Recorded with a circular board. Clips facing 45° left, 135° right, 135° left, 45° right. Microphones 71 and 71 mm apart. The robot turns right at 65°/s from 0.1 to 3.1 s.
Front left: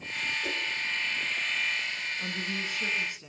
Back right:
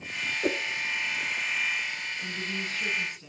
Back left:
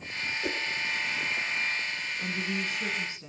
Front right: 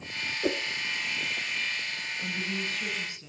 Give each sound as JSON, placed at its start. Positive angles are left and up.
{"t": 0.4, "sound": "a whoosh", "azimuth_deg": -100, "distance_m": 0.6}
{"t": 2.2, "sound": "a woman speaking", "azimuth_deg": 65, "distance_m": 1.5}